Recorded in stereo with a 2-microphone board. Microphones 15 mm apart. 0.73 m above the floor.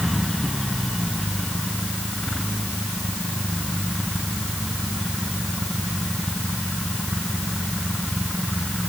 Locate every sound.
Only background noise.